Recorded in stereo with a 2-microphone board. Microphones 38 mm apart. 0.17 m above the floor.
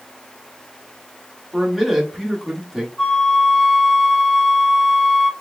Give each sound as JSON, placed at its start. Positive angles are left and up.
{"t": 1.5, "sound": "a man speaking", "side_deg": -5, "distance_m": 1.1}
{"t": 3.0, "sound": "a flute", "side_deg": 15, "distance_m": 0.9}